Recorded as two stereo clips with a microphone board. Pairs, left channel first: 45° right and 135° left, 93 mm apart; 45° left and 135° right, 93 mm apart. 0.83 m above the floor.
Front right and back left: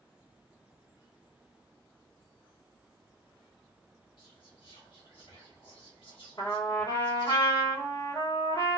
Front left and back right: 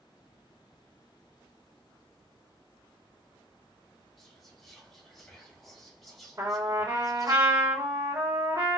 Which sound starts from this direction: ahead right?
Whispering, at 4.2 s.